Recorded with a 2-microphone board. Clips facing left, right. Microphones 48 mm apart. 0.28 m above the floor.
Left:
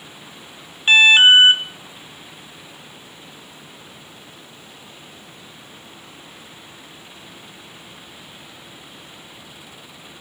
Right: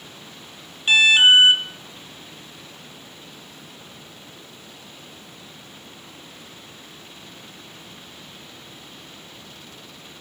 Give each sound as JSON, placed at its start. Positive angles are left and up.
{"t": 0.9, "sound": "an alarm", "side_deg": 35, "distance_m": 0.8}